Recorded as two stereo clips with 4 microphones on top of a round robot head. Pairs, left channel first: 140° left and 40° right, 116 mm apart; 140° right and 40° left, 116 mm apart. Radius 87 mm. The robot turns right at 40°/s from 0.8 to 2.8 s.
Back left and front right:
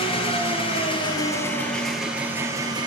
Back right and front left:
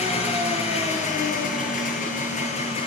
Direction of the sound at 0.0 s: 175° right.